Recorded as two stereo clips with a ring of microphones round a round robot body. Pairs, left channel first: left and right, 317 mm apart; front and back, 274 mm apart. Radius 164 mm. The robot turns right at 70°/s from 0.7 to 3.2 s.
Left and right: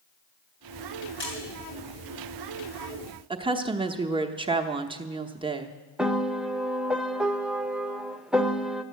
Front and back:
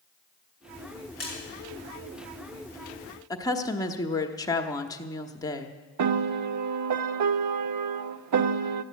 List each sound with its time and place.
1.2 s a splash: 35° left, 6 m; by 1.3 s 45° left, 6 m
3.3 s a woman speaking: 50° right, 0.9 m
6.0 s a piano: straight behind, 0.6 m